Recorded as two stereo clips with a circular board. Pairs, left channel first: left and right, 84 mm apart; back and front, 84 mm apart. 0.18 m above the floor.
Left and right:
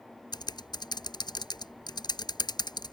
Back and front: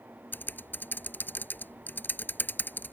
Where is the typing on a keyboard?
115° left.